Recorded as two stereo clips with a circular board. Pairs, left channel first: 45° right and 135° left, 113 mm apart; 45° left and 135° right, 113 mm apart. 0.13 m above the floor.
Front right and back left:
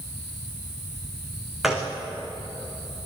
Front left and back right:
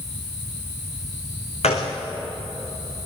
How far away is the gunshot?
About 4.5 m.